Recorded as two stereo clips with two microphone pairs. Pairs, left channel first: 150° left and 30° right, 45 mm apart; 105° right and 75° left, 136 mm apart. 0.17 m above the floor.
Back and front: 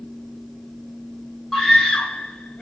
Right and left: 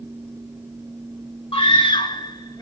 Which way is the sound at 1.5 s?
130° right.